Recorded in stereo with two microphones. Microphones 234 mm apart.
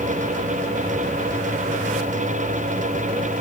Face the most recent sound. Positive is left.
No sound to turn to.